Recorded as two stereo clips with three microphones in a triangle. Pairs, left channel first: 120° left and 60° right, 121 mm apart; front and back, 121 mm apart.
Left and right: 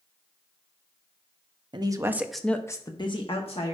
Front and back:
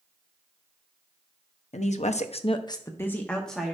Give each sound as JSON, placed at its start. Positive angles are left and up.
{"t": 1.7, "sound": "a woman speaking", "azimuth_deg": -10, "distance_m": 0.8}